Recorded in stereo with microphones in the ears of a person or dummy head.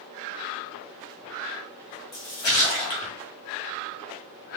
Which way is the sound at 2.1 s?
25° left (ahead or behind).